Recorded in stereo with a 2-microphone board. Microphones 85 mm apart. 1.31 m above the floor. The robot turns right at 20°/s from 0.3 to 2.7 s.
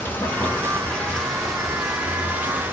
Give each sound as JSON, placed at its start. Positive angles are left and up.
{"t": 0.0, "sound": "running water", "azimuth_deg": 155, "distance_m": 1.1}